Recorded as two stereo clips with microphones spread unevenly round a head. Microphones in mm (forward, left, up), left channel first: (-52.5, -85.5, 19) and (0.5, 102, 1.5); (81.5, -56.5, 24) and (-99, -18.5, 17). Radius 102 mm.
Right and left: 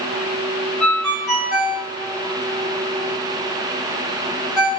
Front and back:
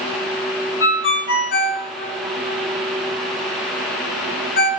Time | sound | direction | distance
0.8 | a ringtone | 20° right | 2.5 m